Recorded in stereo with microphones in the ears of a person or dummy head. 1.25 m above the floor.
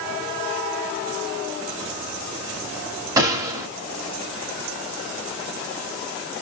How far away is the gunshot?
About 1.3 m.